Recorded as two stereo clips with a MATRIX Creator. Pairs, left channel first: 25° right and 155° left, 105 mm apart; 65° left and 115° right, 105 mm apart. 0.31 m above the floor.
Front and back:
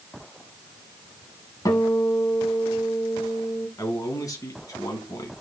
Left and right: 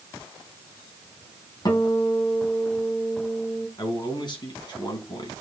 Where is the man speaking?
30° left, 3.5 m.